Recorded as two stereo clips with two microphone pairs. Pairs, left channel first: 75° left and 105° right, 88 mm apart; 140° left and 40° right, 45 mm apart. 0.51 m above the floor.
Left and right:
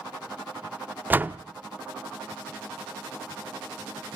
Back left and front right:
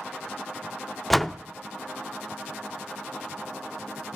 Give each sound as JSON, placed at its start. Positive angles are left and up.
{"t": 1.1, "sound": "a door slam", "azimuth_deg": -135, "distance_m": 0.5}